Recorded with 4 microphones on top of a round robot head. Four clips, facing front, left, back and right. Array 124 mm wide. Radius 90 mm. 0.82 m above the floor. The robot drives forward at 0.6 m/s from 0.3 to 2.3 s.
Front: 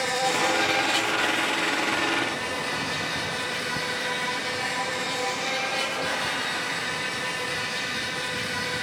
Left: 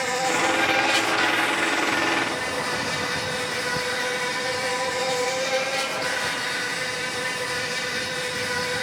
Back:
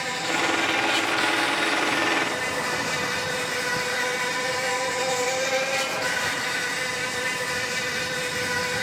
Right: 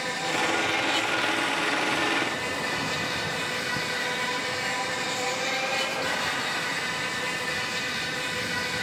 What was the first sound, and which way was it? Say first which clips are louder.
An insect: left 5 dB, front 2 dB; 60° left.